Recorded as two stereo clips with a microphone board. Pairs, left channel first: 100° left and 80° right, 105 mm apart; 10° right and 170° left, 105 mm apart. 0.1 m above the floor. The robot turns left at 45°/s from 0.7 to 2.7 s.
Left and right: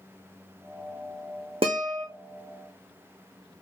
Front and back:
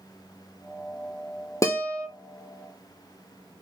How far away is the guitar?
About 0.8 m.